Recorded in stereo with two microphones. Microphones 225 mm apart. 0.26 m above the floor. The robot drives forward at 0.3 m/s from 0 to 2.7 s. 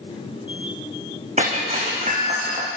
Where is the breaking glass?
30° right (ahead or behind), 6 m.